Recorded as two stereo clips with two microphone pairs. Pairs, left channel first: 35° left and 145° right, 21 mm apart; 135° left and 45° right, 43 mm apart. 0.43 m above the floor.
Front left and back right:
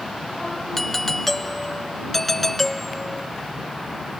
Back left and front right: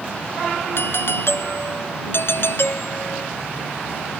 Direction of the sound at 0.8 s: 110° left.